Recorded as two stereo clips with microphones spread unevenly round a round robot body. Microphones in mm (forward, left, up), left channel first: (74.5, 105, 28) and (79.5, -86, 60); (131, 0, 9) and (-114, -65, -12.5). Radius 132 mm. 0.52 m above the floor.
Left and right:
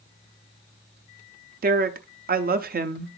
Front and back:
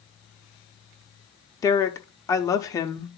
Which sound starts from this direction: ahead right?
A woman speaking, at 1.6 s.